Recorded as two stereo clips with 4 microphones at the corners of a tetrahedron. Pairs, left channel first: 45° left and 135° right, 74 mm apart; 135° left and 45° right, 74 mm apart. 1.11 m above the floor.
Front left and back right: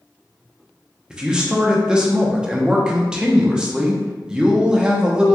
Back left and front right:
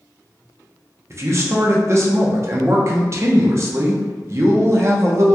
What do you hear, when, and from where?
1.1 s a man speaking: 60° right, 0.6 m